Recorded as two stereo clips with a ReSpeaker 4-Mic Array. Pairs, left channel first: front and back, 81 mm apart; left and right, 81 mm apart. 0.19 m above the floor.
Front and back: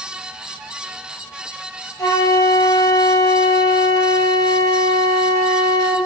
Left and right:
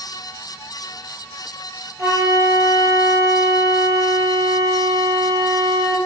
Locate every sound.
2.0 s a flute: 40° right, 0.9 m